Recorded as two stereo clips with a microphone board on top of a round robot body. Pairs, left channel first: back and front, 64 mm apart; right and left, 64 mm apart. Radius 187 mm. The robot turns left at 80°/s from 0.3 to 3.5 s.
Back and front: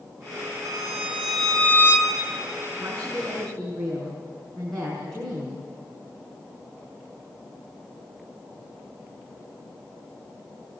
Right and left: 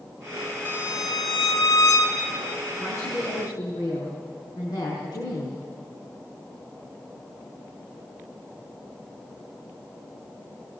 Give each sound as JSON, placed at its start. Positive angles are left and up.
{"t": 0.7, "sound": "a violin", "azimuth_deg": 30, "distance_m": 6.0}
{"t": 2.8, "sound": "a woman speaking", "azimuth_deg": -40, "distance_m": 5.5}